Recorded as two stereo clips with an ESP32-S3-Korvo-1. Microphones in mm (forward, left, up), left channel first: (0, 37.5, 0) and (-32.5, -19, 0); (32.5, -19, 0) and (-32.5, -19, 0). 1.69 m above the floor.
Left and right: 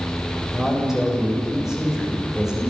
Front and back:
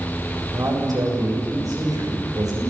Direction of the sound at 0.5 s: 155° left.